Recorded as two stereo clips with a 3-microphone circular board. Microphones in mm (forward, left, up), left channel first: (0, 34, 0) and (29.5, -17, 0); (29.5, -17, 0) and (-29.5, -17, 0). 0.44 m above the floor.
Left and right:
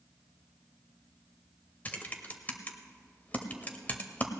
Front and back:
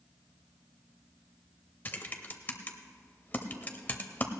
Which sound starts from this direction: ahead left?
Typing on a keyboard, at 1.9 s.